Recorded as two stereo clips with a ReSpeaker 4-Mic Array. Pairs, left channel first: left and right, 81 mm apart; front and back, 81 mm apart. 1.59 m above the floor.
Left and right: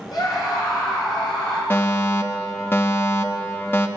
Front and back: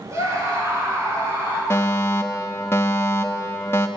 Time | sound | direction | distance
0.1 | a scream | 125° left | 6 m
1.7 | a fire alarm | 40° left | 1.0 m